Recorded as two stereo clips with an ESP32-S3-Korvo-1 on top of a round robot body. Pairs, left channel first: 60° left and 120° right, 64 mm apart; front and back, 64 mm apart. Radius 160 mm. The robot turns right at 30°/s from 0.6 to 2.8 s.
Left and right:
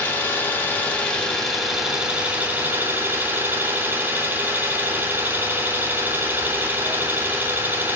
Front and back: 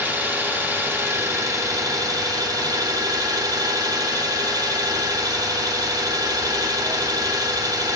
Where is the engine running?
115° left, 1.3 m; by 8.0 s straight behind, 1.3 m.